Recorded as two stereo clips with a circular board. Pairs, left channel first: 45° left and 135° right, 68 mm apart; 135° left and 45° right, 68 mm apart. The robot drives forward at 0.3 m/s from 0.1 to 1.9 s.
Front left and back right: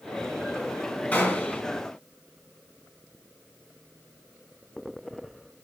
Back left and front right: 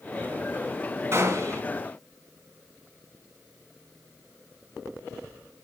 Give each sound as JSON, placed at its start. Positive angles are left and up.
{"t": 1.1, "sound": "a gunshot", "azimuth_deg": -15, "distance_m": 2.0}